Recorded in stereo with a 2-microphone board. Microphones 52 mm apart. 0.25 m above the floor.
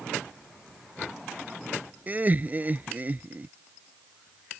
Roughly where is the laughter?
Right.